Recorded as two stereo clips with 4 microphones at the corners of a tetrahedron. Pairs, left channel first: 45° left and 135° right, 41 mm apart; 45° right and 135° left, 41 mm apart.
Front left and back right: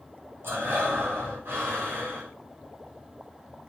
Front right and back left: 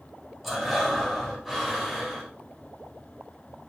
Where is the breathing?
140° right, 4.5 m.